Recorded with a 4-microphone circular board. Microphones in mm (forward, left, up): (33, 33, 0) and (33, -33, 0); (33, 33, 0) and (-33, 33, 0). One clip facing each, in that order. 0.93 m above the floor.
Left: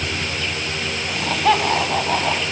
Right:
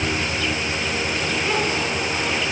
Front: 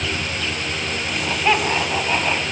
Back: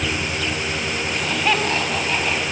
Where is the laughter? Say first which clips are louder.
Left 9 dB, front 2 dB; 85° left, 7.5 m; by 2.4 s 75° left, 6.5 m.